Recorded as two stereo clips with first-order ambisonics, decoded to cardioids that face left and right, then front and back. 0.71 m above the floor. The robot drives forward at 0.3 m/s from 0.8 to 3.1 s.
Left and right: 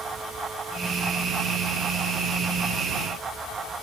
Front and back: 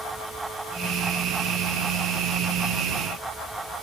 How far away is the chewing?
I don't hear chewing.